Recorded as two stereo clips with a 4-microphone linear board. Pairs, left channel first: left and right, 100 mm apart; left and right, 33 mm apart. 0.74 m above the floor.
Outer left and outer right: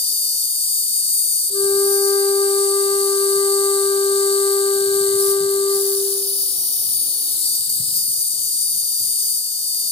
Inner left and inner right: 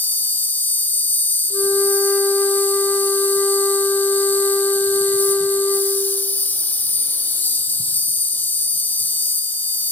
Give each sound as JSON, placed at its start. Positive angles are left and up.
{"t": 0.0, "sound": "an insect", "side_deg": 85, "distance_m": 1.8}
{"t": 1.5, "sound": "a flute", "side_deg": 45, "distance_m": 2.0}